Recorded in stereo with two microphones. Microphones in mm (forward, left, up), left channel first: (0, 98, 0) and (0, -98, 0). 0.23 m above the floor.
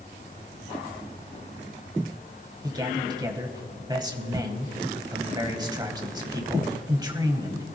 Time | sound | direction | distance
2.6 | a man speaking | 20° right (ahead or behind) | 1.2 m